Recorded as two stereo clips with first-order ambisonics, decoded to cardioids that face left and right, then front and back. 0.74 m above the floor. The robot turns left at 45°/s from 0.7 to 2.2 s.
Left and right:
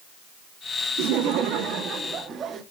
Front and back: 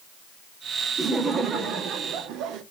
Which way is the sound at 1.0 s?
90° right.